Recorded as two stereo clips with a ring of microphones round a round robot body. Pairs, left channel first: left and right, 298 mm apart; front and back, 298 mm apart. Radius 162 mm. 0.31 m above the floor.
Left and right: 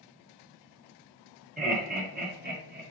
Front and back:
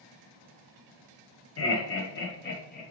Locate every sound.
1.6 s laughter: 30° right, 1.8 m; by 2.8 s 50° right, 1.3 m